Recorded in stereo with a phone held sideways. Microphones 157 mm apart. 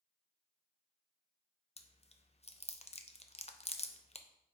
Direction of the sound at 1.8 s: 45° left (ahead or behind).